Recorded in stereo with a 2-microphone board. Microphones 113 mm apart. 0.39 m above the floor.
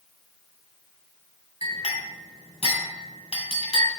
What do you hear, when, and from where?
1.6 s a clink: 65° left (ahead or behind), 2.5 m